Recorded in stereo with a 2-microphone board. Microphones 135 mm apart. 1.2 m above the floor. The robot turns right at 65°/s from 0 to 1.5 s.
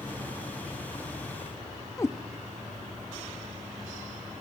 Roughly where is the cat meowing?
Left.